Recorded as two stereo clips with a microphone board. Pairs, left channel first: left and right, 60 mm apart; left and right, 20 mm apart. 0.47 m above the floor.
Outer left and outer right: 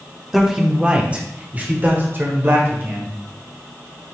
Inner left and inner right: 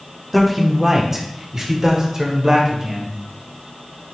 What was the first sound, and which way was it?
A man speaking, 5° right (ahead or behind).